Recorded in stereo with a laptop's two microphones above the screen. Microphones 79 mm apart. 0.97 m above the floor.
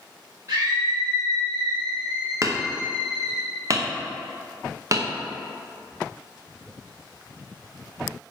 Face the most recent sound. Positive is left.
turn(degrees=-40)  # may be behind; listen again after turning